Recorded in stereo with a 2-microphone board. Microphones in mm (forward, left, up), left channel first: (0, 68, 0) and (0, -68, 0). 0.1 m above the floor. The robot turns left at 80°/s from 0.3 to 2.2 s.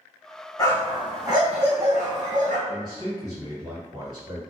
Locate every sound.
0.6 s a dog barking: 30° left, 1.4 m; by 2.6 s 100° right, 1.4 m
2.7 s a man speaking: 30° right (ahead or behind), 1.9 m